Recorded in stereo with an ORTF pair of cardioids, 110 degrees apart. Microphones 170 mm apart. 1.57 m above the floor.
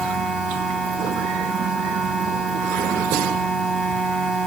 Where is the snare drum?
I don't hear a snare drum.